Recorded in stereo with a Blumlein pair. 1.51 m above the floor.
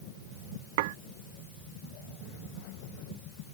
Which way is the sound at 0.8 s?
50° right.